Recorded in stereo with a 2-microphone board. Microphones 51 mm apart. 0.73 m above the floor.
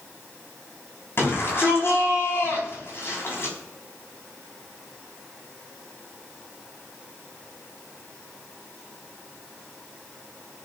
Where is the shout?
50° left (ahead or behind), 6 m.